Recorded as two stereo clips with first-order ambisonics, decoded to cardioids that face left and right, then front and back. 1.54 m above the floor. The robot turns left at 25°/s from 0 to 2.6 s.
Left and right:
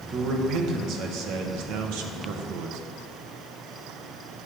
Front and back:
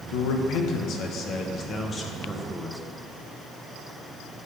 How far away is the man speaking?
About 1.2 m.